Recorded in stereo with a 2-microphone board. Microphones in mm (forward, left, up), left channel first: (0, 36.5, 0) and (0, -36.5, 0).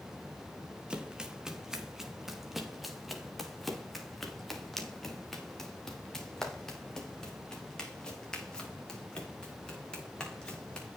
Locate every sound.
0.9 s running footsteps: 10° right (ahead or behind), 3 m; by 11.0 s 10° left (ahead or behind), 9.5 m